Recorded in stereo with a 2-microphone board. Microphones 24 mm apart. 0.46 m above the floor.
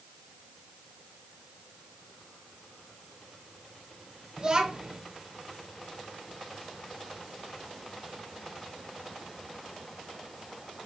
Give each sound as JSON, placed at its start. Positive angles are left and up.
{"t": 4.4, "sound": "a child speaking", "side_deg": -35, "distance_m": 0.9}